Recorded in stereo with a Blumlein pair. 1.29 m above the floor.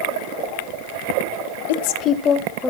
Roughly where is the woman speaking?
Ahead left.